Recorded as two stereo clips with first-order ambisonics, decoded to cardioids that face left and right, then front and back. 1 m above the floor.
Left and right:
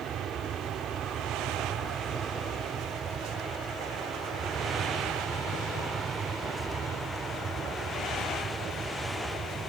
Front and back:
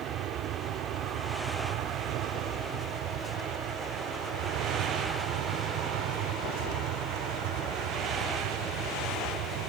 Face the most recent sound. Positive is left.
turn(degrees=-160)